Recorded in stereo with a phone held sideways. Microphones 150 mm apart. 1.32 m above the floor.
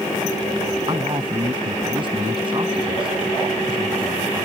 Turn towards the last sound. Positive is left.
turn(degrees=-35)  # may be behind; listen again after turning